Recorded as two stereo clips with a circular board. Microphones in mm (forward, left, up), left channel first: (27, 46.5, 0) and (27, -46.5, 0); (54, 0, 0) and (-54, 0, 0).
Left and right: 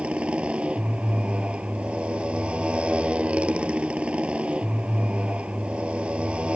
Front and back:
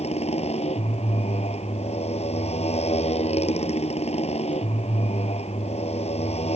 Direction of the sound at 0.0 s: 10° right.